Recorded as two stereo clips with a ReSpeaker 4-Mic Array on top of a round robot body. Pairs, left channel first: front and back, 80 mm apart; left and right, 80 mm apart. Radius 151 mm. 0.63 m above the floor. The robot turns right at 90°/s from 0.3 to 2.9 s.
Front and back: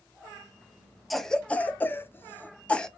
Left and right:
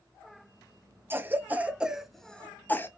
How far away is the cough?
About 0.9 m.